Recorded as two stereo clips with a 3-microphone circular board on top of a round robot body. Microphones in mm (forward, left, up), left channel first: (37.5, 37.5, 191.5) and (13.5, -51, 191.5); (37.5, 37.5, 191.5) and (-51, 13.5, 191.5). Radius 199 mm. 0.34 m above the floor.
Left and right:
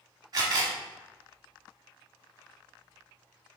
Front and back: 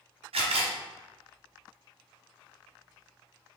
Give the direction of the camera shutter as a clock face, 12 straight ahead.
5 o'clock.